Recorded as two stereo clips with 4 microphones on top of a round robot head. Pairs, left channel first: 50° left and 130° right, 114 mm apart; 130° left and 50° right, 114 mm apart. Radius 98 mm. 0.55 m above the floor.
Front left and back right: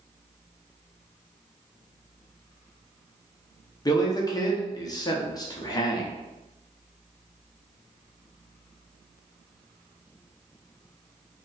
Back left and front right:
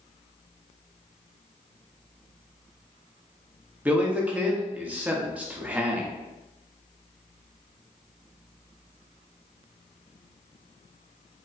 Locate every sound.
3.9 s a man speaking: 20° left, 0.9 m